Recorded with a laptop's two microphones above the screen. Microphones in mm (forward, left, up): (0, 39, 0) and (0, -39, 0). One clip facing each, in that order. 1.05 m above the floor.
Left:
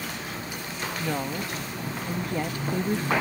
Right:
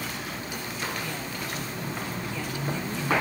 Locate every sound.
1.0 s a woman speaking: 45° left (ahead or behind)